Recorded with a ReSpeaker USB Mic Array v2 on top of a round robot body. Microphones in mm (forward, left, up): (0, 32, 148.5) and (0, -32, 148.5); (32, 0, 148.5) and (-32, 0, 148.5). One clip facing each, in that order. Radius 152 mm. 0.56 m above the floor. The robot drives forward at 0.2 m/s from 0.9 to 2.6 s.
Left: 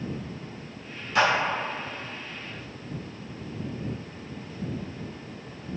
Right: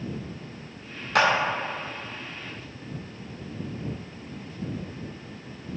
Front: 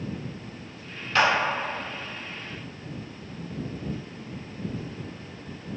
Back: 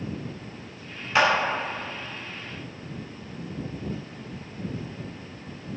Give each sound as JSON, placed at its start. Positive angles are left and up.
{"t": 1.1, "sound": "a clap", "azimuth_deg": -105, "distance_m": 0.6}